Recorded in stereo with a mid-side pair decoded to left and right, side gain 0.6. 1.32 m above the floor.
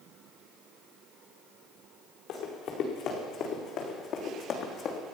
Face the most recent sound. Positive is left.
turn(degrees=55)